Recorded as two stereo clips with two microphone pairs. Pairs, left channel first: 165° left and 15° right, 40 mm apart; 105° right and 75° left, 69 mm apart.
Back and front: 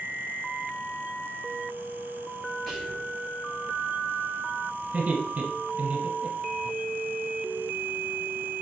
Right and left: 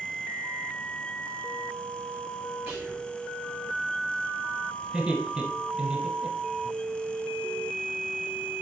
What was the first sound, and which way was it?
Whispering, 105° left.